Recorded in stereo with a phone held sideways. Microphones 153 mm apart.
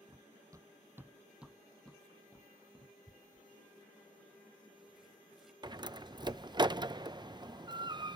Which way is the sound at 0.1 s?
25° right (ahead or behind).